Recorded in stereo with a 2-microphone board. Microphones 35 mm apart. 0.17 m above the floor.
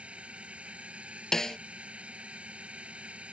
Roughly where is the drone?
Right.